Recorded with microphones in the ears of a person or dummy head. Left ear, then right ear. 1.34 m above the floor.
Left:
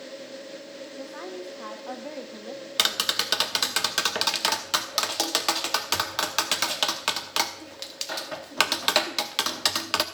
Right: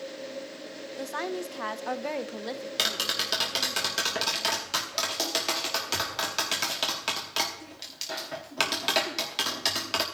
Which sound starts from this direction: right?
A woman speaking, at 1.0 s.